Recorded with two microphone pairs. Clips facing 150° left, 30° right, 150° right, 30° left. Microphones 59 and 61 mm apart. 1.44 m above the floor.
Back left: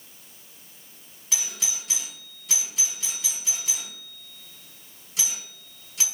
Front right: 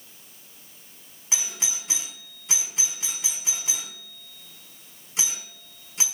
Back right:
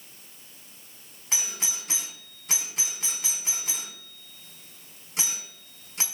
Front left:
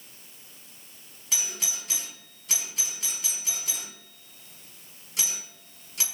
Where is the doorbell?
95° right, 4 m.